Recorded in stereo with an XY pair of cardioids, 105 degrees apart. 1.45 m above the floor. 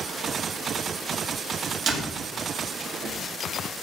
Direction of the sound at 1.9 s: 60° right.